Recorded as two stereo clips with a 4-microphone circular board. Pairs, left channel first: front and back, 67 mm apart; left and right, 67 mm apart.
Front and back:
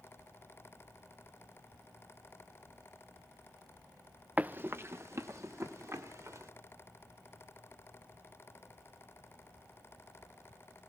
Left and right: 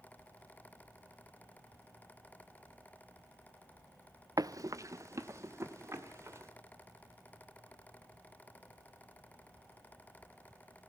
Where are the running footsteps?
110° right, 0.7 m; by 6.5 s 140° right, 3.5 m.